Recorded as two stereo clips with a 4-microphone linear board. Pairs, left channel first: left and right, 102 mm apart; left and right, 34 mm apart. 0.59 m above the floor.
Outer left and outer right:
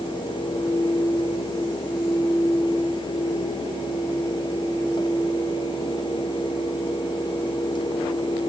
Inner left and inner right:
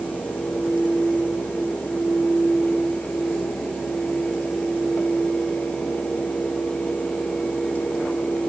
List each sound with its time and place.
Only background noise.